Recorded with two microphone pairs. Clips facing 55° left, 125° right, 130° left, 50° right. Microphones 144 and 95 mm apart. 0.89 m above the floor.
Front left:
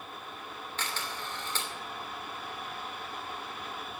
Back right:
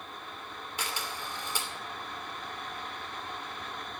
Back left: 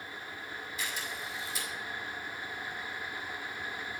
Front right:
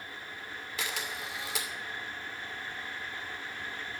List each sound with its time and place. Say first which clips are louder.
0.8 s a camera shutter: back right 1 dB, front right 3 dB; 45° right, 2.5 m